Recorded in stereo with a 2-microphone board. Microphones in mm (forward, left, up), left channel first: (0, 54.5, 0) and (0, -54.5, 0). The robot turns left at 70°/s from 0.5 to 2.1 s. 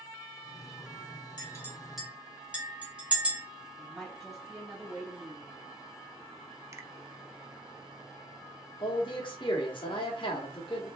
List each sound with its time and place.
1.4 s a clink: 40° left (ahead or behind), 2 m; by 3.4 s 10° right (ahead or behind), 2 m
3.8 s a woman speaking: centre (ahead or behind), 2.5 m
6.7 s a finger snap: 25° right (ahead or behind), 0.5 m
8.8 s a man speaking: 50° left (ahead or behind), 1.5 m